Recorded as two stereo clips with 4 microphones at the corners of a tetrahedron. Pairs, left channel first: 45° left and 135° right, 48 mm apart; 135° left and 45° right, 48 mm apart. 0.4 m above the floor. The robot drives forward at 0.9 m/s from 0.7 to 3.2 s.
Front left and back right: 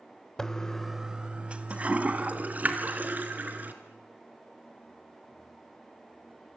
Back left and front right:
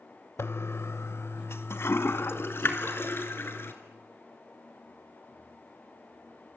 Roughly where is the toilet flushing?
Behind left.